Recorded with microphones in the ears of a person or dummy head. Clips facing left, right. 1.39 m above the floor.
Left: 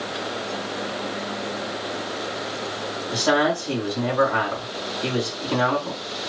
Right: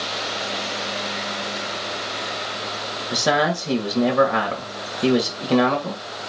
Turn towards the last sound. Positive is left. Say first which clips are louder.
# even
turn(degrees=-70)  # may be behind; listen again after turning